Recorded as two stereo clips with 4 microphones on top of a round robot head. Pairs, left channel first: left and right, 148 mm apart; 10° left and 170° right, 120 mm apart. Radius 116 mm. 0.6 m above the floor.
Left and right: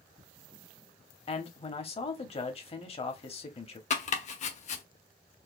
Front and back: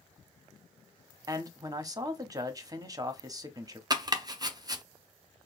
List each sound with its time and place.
1.3 s a man speaking: 130° left, 0.9 m
3.9 s chopping: 130° left, 0.6 m